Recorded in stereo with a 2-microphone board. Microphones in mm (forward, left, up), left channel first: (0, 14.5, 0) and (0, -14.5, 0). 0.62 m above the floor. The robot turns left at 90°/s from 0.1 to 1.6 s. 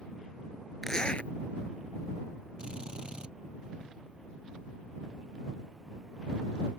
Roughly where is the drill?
Right.